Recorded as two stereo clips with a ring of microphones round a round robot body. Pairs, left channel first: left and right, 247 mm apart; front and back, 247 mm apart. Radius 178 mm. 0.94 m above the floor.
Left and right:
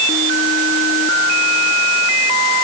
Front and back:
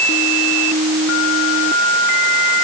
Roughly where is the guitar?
I don't hear a guitar.